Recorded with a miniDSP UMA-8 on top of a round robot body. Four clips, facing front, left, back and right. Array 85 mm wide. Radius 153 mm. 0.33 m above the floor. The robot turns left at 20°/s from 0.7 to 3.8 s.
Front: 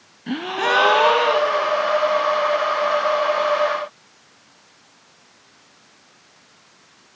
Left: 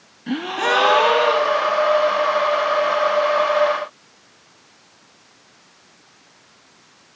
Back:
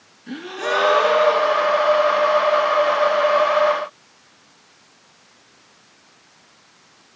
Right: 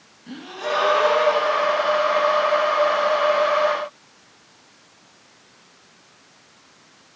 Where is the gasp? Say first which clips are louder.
Left 7 dB, front 3 dB; 40° left, 1.2 m; by 1.7 s 20° left, 1.2 m.